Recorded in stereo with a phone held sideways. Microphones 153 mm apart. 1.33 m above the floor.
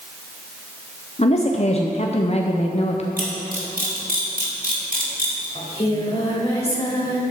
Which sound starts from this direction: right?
A camera shutter, at 3.2 s.